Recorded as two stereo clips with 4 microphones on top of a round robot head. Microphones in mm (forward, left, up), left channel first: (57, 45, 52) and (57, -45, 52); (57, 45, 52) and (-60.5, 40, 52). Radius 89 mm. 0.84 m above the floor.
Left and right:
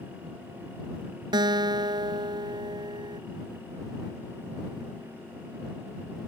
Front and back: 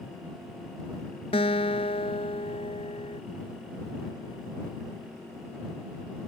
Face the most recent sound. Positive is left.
turn(degrees=-55)